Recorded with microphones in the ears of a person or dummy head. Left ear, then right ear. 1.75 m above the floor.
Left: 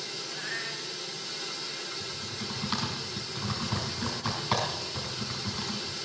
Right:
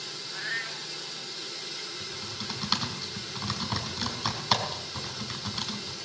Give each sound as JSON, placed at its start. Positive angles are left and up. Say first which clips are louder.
{"t": 0.3, "sound": "a cat meowing", "louder": "right 4 dB", "side_deg": -25, "distance_m": 3.0}
{"t": 2.0, "sound": "typing on a keyboard", "louder": "even", "side_deg": -30, "distance_m": 5.0}